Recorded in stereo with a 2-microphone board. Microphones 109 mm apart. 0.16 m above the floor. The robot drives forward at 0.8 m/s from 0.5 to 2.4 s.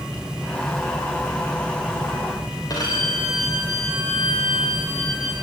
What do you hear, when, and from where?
2.7 s a violin: 35° left (ahead or behind), 8 m